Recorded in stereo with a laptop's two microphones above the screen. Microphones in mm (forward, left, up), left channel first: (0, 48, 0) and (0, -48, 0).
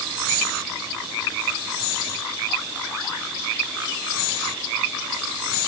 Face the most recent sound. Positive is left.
No sound to turn to.